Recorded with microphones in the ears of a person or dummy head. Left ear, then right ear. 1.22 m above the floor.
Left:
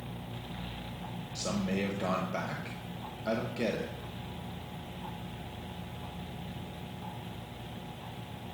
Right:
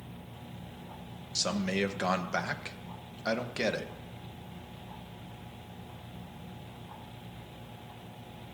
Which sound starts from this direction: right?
A man speaking, at 1.4 s.